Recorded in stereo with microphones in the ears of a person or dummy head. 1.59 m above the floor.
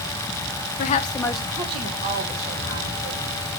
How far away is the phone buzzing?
I don't hear a phone buzzing.